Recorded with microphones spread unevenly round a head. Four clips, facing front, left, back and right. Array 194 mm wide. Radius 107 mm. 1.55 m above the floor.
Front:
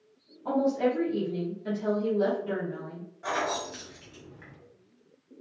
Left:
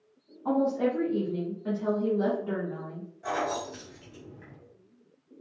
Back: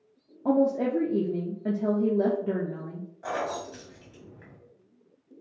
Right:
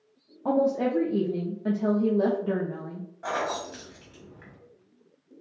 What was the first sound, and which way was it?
A woman speaking, 140° right.